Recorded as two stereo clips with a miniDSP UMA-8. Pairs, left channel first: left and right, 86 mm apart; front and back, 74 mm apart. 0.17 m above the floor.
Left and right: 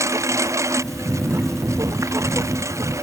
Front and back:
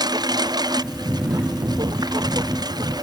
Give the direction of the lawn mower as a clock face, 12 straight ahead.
5 o'clock.